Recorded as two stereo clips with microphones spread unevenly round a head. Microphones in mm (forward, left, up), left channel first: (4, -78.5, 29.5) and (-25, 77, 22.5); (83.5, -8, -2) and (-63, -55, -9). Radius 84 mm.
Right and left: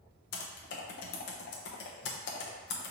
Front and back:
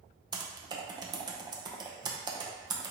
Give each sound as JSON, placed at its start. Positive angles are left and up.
{"t": 0.3, "sound": "typing on a keyboard", "azimuth_deg": -100, "distance_m": 0.6}